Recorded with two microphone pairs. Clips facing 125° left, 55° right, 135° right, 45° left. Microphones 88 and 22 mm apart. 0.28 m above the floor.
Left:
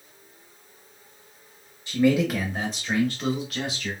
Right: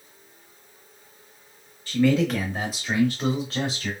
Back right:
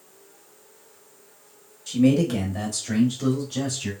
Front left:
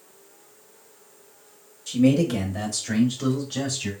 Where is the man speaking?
140° left, 0.9 m; by 3.9 s 25° right, 1.2 m.